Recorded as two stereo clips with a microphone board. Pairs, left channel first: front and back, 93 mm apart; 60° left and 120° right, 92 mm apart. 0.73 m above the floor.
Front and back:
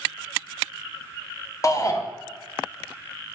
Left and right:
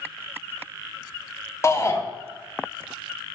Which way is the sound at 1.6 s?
20° left.